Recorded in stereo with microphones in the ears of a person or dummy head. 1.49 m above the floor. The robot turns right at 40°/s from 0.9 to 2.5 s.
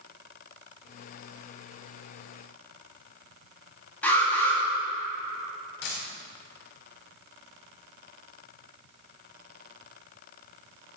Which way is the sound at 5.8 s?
60° left (ahead or behind).